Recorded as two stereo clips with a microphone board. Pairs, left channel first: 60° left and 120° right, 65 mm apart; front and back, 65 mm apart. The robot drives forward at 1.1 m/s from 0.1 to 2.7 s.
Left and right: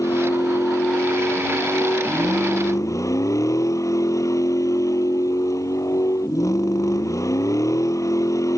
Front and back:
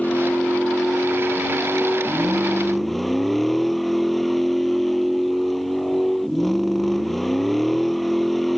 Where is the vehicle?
65° left; by 8.6 s 85° left.